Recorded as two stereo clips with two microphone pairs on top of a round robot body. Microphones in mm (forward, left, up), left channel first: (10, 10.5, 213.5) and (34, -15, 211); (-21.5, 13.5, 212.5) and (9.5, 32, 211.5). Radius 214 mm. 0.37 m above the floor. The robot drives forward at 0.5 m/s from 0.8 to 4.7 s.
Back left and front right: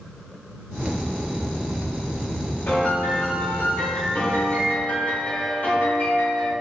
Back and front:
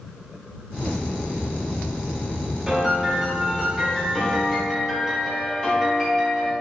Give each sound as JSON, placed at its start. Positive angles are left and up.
{"t": 2.7, "sound": "a piano", "azimuth_deg": 105, "distance_m": 1.9}